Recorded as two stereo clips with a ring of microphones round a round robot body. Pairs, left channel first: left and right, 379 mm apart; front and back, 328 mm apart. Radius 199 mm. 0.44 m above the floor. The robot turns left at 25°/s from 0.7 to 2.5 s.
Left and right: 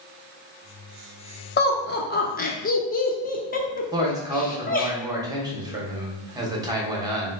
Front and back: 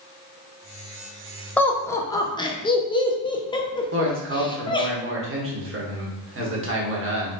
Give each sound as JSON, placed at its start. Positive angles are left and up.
{"t": 1.6, "sound": "laughter", "azimuth_deg": 80, "distance_m": 0.8}
{"t": 3.9, "sound": "a man speaking", "azimuth_deg": -165, "distance_m": 1.3}